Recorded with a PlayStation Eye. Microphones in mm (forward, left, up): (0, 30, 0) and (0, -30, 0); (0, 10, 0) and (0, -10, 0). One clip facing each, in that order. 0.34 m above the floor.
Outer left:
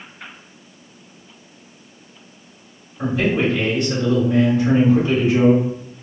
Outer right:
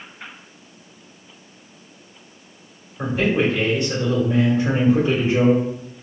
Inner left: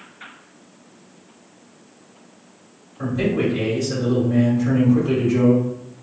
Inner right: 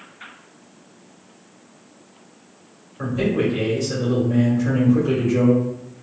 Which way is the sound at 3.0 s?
25° right (ahead or behind).